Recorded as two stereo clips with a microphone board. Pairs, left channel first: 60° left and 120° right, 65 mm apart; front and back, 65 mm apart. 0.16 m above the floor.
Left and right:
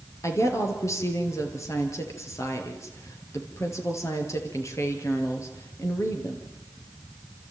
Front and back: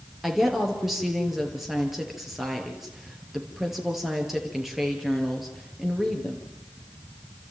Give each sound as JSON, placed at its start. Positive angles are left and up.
{"t": 0.2, "sound": "a woman speaking", "azimuth_deg": 95, "distance_m": 3.5}